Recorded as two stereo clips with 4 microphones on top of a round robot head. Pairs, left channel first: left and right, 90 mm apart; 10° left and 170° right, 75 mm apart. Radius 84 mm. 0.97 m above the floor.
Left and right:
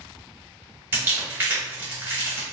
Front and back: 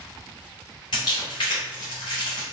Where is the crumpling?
25° right, 1.0 m.